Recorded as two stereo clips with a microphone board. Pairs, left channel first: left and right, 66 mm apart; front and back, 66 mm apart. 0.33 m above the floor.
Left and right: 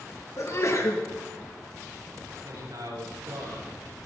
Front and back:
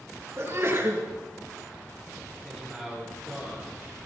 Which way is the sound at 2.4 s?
80° right.